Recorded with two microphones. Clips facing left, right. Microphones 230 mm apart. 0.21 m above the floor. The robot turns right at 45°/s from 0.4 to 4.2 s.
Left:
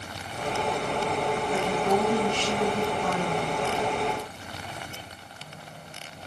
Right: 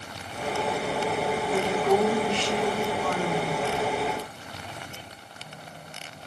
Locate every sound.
1.5 s a woman speaking: 35° left, 2.0 m; by 3.6 s 130° left, 2.0 m